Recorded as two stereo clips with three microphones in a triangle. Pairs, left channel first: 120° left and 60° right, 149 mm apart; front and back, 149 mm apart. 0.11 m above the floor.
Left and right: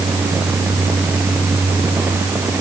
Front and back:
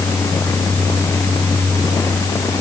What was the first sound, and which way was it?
Only background noise.